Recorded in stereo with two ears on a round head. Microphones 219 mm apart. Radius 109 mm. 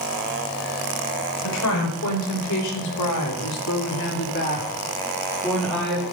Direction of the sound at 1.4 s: 70° left (ahead or behind).